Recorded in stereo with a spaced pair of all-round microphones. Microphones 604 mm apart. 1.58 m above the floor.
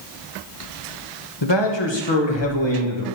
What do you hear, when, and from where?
1.4 s a man speaking: 45° left (ahead or behind), 1.3 m